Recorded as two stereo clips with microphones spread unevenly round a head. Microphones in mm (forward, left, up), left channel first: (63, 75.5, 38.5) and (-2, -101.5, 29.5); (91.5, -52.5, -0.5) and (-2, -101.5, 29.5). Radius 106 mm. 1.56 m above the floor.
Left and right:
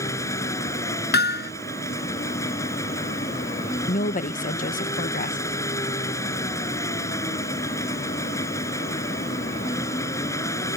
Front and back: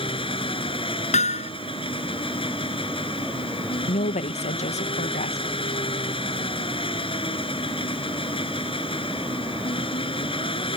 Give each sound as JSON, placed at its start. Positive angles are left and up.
{"t": 0.0, "sound": "an engine running", "azimuth_deg": -5}
{"t": 1.1, "sound": "hammering", "azimuth_deg": 40}
{"t": 3.9, "sound": "a woman speaking", "azimuth_deg": 25}